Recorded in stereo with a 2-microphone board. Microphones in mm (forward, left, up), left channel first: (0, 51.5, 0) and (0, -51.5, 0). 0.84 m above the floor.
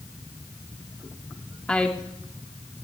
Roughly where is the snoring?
No snoring in this recording.